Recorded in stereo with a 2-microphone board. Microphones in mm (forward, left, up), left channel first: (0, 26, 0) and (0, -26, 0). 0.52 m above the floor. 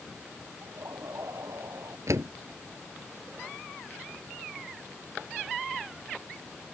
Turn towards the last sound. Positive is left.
turn(degrees=-80)